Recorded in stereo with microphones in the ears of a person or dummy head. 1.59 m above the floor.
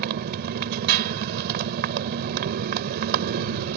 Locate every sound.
0.0 s a motorcycle: 50° right (ahead or behind)